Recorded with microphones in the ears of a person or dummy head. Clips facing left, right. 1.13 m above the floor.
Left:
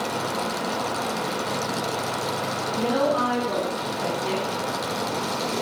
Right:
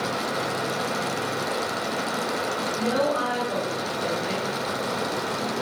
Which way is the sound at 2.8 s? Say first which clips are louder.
Left 2 dB; 40° left (ahead or behind).